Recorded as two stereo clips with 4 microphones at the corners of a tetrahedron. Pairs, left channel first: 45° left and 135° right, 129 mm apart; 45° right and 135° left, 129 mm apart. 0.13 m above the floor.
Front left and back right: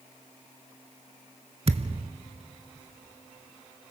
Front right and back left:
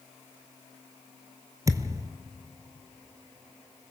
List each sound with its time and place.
1.7 s a thud: 165° right, 0.8 m